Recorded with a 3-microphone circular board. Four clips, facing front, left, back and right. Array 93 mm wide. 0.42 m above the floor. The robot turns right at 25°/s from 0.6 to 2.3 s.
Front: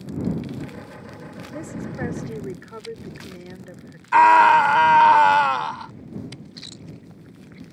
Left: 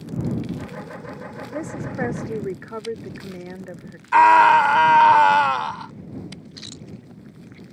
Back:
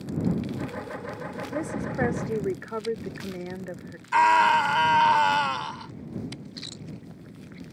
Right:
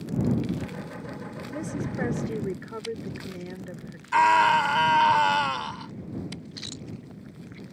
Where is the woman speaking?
120° left; by 4.0 s 140° left.